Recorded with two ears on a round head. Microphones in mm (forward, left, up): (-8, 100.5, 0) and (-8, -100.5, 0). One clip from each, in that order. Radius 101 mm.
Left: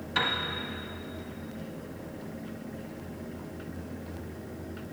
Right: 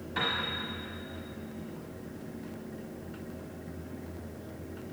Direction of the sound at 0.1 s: 60° left (ahead or behind).